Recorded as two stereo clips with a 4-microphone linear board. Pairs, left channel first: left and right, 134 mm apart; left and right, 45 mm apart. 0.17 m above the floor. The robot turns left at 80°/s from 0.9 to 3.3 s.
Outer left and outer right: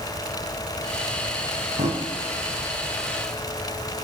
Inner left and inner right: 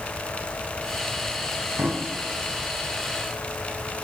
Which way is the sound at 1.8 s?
65° right (ahead or behind).